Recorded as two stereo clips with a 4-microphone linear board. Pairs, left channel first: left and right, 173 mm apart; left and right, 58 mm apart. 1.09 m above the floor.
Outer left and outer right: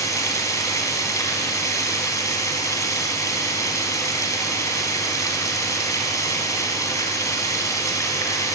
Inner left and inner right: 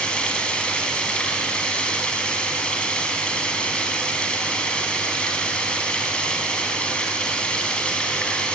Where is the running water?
15° left (ahead or behind), 4 m.